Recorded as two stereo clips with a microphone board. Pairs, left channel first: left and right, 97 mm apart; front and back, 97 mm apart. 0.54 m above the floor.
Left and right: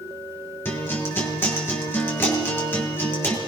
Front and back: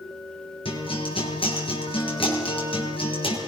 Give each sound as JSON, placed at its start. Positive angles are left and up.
{"t": 0.7, "sound": "a guitar", "azimuth_deg": 25, "distance_m": 7.0}